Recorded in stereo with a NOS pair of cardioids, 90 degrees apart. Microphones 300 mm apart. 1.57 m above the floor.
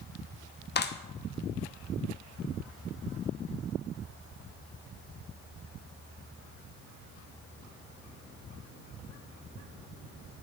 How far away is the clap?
About 1.4 m.